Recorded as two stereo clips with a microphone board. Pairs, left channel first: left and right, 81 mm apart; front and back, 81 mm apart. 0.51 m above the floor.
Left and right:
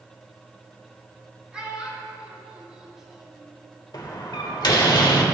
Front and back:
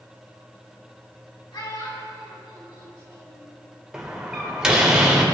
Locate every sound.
1.5 s a child speaking: 15° right, 2.5 m; by 3.5 s 5° right, 1.2 m
3.9 s a door slam: 100° left, 1.3 m